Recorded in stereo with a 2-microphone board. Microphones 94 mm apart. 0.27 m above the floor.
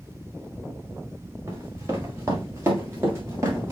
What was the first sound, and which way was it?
Running footsteps, 30° right (ahead or behind).